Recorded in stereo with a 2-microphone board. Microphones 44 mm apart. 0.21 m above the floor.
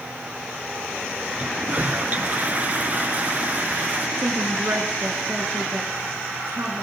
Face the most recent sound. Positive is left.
turn(degrees=-60)  # may be behind; listen again after turning